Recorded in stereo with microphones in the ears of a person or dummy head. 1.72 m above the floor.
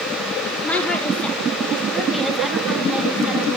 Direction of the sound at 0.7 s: 10° left (ahead or behind).